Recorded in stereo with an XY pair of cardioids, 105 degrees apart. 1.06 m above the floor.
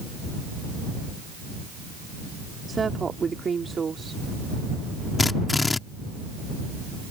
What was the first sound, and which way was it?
A woman speaking, 35° right.